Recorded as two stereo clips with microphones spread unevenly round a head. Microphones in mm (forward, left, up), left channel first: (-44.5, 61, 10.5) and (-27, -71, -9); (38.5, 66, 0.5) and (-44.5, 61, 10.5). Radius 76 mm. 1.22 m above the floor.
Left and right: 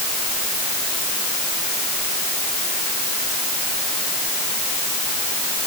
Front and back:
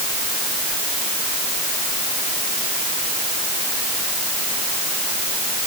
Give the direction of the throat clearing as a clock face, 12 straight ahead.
I don't hear throat clearing.